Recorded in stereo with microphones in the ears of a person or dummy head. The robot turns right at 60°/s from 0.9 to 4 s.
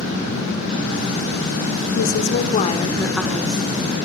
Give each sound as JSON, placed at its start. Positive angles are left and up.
{"t": 1.9, "sound": "a woman speaking", "azimuth_deg": 100, "distance_m": 4.0}